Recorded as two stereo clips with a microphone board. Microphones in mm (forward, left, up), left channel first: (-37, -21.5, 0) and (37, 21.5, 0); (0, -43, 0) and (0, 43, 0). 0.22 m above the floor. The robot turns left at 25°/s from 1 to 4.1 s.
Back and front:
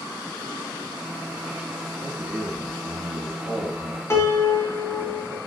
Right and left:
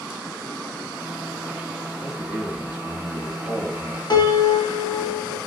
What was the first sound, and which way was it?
A man speaking, 20° left.